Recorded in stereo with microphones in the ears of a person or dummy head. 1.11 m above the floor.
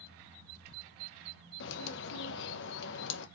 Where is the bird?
65° left (ahead or behind), 0.5 m.